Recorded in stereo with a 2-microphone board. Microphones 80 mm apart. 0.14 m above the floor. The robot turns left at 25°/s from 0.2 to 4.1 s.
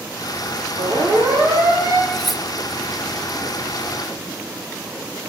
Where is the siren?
80° right, 9.5 m; by 2.0 s 60° right (ahead or behind), 9 m.